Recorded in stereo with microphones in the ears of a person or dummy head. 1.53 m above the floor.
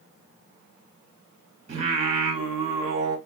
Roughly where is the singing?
Right.